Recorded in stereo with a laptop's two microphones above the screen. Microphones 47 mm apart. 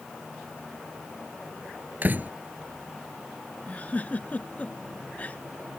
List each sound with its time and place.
2.0 s a door slam: 40° right (ahead or behind)
3.7 s a giggle: 35° left (ahead or behind)